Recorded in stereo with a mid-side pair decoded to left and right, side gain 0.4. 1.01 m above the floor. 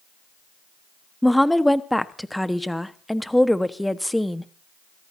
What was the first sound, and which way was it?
A woman speaking, 5° left.